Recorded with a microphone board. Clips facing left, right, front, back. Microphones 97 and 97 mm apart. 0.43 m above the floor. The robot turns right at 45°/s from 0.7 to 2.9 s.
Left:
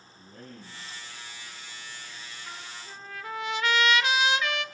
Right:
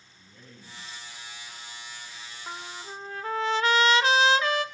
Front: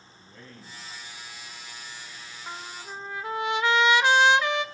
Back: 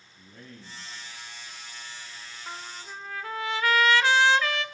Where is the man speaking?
120° left, 4 m; by 1.1 s 140° left, 4 m.